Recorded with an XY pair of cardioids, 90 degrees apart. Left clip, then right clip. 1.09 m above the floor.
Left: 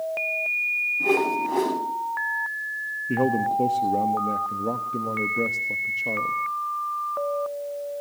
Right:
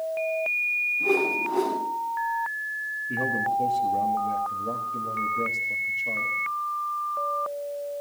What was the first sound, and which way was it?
A whoosh, 50° left.